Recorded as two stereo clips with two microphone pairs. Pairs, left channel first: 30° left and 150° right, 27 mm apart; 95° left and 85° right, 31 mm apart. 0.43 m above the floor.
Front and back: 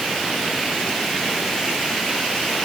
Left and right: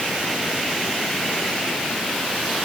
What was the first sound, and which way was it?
Only background noise.